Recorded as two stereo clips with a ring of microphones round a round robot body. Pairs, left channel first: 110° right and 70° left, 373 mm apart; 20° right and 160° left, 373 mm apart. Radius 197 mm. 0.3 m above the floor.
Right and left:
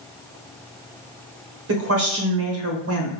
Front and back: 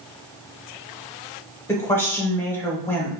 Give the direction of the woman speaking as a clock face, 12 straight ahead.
10 o'clock.